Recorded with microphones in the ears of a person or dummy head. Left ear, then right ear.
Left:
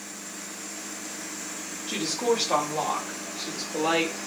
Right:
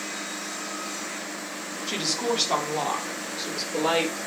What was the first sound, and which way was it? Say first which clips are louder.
A woman speaking: left 1 dB; 40° right (ahead or behind).